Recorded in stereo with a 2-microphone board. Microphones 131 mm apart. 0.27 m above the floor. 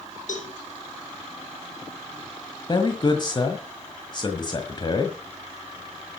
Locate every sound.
0.3 s a cowbell: 75° left (ahead or behind), 6 m
2.7 s a man speaking: 35° left (ahead or behind), 1.5 m